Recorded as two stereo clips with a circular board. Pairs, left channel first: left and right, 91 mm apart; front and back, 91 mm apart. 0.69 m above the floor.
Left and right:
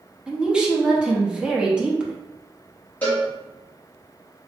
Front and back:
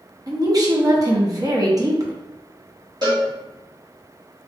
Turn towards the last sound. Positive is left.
turn(degrees=155)